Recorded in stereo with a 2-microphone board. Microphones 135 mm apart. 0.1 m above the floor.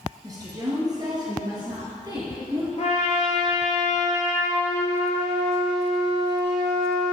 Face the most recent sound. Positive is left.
turn(degrees=55)  # may be behind; listen again after turning